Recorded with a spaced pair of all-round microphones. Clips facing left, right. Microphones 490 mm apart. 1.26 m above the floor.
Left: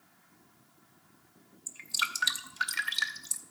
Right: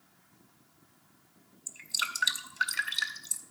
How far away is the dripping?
About 0.8 m.